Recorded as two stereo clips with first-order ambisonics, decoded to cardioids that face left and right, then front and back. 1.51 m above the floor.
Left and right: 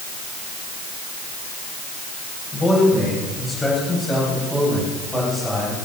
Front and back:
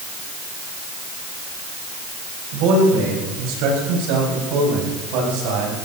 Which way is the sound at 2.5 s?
160° left.